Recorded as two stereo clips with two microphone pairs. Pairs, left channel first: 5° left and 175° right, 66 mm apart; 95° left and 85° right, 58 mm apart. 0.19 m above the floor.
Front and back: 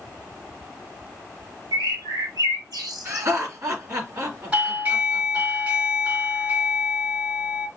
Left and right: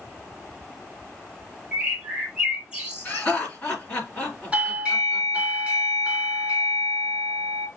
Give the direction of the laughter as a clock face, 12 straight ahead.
7 o'clock.